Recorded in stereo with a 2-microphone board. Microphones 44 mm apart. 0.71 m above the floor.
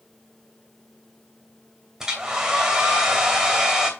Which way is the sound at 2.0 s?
15° right (ahead or behind).